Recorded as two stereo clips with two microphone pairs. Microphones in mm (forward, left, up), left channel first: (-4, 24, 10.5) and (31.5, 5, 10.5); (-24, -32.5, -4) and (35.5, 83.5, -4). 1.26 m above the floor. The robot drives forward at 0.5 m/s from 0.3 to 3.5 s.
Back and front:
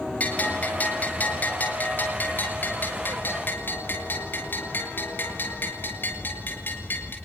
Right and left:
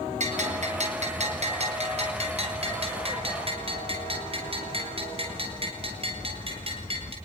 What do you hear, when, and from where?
0.2 s a bell: 95° left, 5.5 m; by 7.2 s 110° left, 6 m